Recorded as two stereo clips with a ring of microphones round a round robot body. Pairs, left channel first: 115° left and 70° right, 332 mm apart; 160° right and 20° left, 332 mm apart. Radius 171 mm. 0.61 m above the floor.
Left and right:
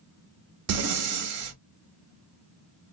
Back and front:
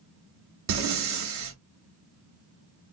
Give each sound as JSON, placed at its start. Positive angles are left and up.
{"t": 0.7, "sound": "breathing", "azimuth_deg": -25, "distance_m": 0.7}